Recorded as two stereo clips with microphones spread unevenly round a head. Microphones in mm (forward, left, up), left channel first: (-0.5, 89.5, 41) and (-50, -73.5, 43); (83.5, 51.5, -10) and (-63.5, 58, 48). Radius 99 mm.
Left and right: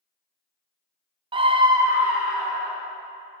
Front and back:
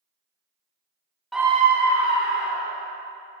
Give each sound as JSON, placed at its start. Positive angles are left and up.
{"t": 1.3, "sound": "a scream", "azimuth_deg": -60, "distance_m": 0.5}